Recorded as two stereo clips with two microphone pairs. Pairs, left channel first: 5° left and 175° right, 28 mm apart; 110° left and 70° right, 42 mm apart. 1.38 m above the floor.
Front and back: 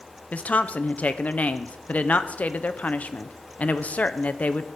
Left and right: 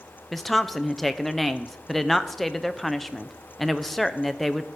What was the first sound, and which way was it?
A woman speaking, 25° left.